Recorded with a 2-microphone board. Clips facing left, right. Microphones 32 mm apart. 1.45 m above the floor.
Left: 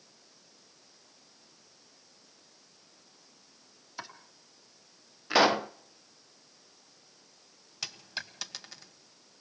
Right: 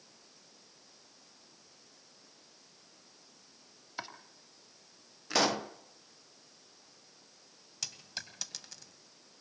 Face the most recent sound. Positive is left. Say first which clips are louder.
# left 4 dB
turn(degrees=20)  # may be behind; listen again after turning